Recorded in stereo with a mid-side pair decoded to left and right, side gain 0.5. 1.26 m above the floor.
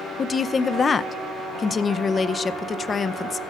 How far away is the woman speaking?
About 0.5 m.